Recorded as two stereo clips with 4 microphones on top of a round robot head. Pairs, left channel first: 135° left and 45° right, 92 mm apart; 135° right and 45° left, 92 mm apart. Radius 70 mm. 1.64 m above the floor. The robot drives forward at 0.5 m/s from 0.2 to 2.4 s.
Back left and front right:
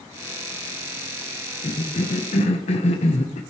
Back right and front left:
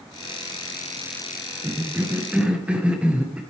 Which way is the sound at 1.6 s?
110° left.